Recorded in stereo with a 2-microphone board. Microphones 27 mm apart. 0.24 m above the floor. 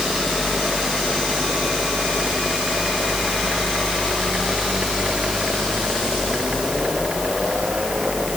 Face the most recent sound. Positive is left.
No sound to turn to.